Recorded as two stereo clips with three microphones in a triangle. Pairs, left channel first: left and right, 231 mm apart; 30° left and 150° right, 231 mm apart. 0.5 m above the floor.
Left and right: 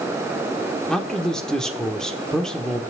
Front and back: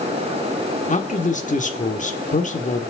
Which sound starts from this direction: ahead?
A man speaking, at 0.9 s.